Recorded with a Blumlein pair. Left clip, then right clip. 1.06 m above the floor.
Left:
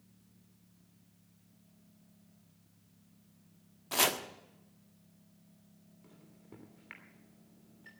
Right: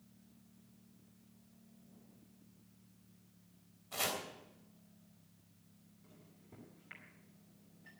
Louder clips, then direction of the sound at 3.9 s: Left 8 dB; 50° left.